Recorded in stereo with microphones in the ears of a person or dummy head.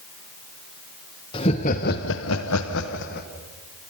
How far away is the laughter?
About 1.5 m.